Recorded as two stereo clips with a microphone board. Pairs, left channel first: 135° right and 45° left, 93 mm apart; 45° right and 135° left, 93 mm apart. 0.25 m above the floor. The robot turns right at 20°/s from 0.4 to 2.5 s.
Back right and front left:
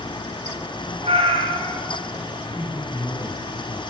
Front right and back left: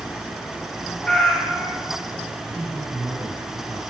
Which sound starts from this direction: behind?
A man speaking, at 2.5 s.